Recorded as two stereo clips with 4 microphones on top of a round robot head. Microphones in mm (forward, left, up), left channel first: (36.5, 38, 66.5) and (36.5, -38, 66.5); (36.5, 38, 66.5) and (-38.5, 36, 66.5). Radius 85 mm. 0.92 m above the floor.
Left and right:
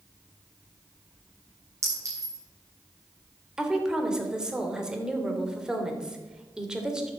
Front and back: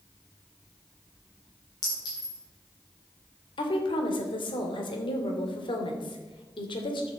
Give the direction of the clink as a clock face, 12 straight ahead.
1 o'clock.